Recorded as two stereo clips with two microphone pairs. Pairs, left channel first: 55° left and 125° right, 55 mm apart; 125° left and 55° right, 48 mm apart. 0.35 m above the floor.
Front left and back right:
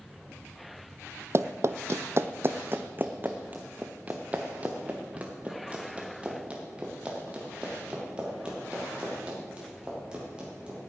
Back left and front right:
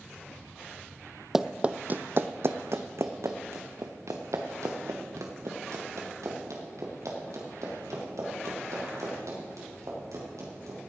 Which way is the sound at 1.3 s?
140° right.